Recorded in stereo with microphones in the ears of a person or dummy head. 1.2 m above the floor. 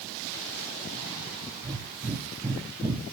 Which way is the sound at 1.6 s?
20° right (ahead or behind).